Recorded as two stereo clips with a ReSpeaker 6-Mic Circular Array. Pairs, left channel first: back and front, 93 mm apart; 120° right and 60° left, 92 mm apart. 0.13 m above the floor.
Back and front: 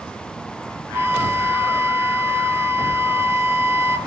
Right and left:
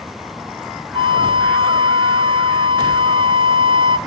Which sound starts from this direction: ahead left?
A flute, at 0.9 s.